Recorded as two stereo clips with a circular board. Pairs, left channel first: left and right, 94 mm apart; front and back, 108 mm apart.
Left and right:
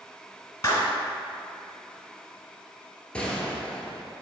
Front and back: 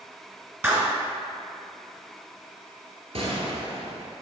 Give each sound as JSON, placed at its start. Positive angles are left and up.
{"t": 0.6, "sound": "a clap", "azimuth_deg": 125, "distance_m": 1.2}
{"t": 3.1, "sound": "a gunshot", "azimuth_deg": 165, "distance_m": 1.0}